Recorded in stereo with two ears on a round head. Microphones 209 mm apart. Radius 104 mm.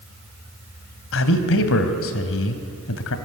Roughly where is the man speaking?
Left.